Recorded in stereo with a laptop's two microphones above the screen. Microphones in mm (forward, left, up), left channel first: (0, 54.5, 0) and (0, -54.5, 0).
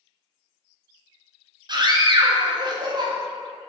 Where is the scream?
40° right (ahead or behind), 0.5 m.